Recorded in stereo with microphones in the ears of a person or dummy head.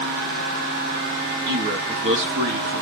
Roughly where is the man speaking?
Right.